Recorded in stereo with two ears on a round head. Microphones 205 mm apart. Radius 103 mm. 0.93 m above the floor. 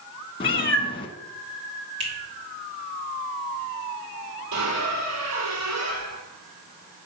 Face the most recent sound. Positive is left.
turn(degrees=-75)  # may be behind; listen again after turning